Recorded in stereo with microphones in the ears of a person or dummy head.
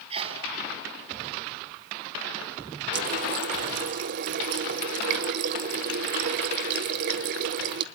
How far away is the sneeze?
About 4.5 m.